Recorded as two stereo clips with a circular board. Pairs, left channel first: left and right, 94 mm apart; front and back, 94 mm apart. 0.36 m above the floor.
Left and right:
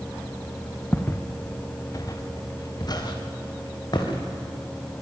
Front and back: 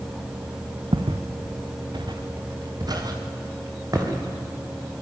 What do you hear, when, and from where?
0.9 s footsteps: 160° left, 1.6 m; by 4.3 s 130° left, 5.5 m